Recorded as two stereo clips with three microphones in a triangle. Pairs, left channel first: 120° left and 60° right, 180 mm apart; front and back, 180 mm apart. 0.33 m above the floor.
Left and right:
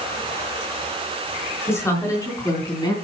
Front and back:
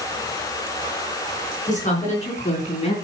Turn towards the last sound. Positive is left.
turn(degrees=55)